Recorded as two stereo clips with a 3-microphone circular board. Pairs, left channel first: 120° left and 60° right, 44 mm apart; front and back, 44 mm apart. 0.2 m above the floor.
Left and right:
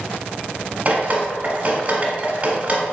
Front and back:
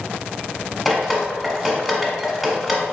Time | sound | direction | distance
0.8 | dripping | 90° right | 1.0 m